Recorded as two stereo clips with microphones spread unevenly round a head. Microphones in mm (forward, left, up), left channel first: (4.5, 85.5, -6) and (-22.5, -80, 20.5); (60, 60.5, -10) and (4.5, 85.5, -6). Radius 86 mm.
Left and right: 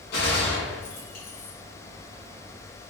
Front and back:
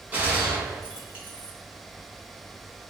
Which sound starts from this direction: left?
A gunshot, at 0.1 s.